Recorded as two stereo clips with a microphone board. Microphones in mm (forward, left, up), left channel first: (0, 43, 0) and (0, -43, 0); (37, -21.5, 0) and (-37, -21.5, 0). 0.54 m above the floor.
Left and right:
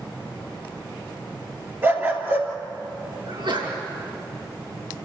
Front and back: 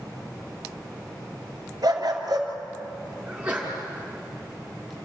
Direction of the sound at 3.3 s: 105° right.